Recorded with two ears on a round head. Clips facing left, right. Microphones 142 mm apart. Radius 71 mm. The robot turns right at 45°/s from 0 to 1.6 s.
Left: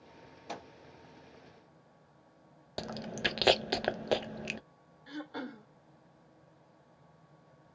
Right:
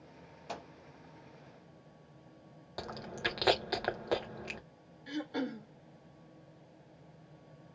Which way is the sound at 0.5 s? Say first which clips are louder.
Even; 5° left (ahead or behind).